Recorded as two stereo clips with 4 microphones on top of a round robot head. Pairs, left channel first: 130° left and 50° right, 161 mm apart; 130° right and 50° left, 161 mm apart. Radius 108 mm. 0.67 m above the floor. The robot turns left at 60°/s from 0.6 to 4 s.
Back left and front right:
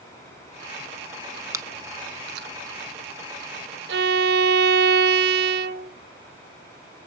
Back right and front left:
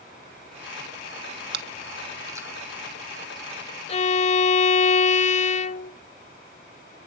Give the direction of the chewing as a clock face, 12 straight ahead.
11 o'clock.